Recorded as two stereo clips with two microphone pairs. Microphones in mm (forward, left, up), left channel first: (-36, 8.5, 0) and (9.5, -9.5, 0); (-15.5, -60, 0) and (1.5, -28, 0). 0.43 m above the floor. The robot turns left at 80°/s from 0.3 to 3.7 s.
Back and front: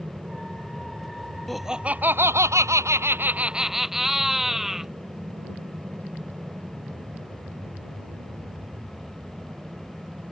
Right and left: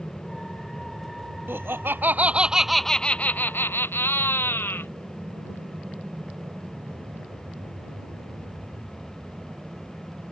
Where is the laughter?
75° left; by 4.9 s 105° right.